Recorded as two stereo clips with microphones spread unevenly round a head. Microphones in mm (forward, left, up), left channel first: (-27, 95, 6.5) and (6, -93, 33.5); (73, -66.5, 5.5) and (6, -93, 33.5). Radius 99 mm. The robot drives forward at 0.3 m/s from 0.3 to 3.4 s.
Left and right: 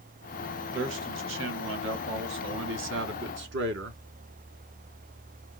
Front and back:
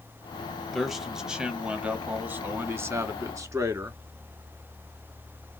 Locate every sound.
0.7 s a man speaking: 60° right, 1.3 m; by 4.0 s 105° right, 1.1 m